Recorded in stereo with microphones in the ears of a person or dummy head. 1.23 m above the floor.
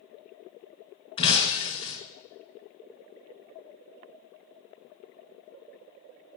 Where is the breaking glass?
30° left (ahead or behind), 3 m.